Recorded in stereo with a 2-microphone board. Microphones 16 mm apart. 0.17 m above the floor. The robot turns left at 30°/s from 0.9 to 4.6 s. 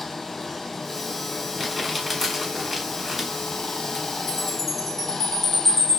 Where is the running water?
165° left, 0.9 m; by 6.0 s 55° left, 0.9 m.